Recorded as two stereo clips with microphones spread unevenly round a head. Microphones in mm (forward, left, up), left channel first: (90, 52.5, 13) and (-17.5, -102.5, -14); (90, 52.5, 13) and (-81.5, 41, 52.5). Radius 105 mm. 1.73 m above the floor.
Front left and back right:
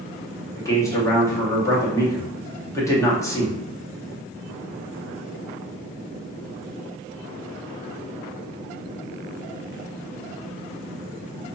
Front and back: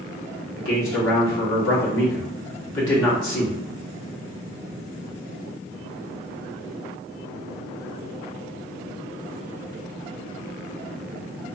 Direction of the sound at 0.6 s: 20° right.